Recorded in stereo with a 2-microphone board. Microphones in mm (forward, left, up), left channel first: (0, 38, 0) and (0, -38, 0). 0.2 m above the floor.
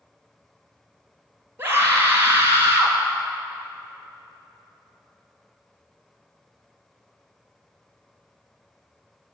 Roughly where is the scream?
Right.